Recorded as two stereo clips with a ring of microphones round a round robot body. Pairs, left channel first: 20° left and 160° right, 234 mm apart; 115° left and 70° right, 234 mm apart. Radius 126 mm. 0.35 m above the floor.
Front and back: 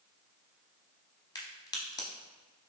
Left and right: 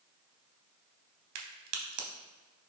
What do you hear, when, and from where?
1.4 s a crack: 50° right, 0.7 m